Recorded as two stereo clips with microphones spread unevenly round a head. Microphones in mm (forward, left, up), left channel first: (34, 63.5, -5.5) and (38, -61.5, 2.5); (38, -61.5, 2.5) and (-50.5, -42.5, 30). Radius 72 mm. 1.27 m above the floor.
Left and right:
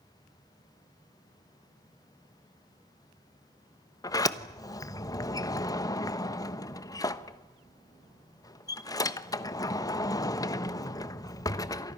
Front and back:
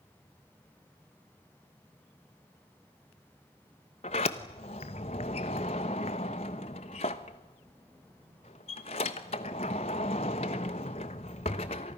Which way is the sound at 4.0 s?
30° left.